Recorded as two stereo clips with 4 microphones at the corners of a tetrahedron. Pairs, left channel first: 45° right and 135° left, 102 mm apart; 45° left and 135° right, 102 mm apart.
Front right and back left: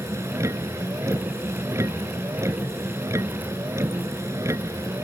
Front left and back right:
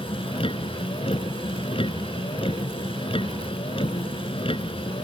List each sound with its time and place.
0.0 s a vehicle: 75° left